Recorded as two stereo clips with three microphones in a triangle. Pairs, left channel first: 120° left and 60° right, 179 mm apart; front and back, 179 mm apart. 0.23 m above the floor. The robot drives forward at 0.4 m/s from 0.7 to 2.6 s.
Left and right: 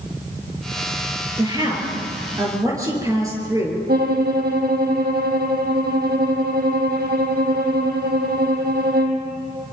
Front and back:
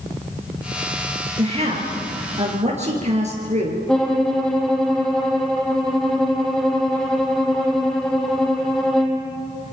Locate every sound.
1.4 s a woman speaking: 125° right, 5 m; by 3.8 s 130° right, 5.5 m
3.9 s a violin: 85° right, 2.5 m